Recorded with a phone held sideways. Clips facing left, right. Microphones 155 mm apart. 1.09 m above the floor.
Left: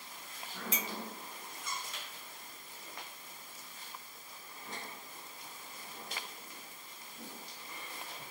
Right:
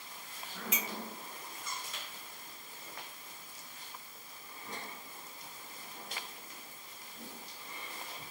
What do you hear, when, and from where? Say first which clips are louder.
0.7 s a clink: even; 35° left (ahead or behind), 0.6 m